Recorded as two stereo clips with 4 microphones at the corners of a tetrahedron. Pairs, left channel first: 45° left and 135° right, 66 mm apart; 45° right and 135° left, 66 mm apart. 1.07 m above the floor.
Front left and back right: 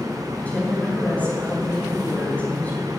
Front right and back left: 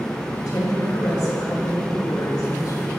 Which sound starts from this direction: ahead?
A woman speaking, at 0.3 s.